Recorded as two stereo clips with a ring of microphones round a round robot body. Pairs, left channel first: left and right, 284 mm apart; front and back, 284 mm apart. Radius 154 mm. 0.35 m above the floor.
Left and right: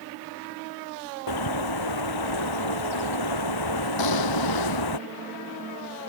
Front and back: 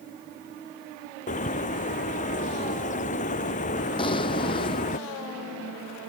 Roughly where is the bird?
Left.